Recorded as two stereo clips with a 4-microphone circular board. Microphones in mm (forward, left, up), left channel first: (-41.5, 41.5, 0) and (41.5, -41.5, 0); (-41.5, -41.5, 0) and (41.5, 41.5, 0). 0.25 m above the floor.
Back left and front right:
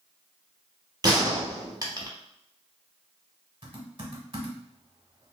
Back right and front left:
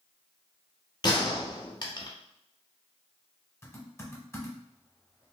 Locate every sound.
1.0 s a gunshot: 95° right, 0.8 m
3.6 s typing on a keyboard: 75° right, 1.1 m